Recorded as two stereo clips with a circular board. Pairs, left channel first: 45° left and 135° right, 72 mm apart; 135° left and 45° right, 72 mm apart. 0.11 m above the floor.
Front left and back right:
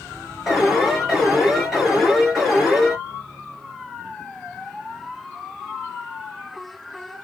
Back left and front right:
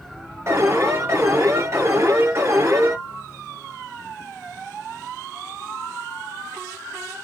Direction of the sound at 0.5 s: 45° right.